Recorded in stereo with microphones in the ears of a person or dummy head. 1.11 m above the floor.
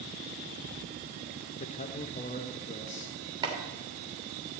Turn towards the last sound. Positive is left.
turn(degrees=-25)  # may be behind; listen again after turning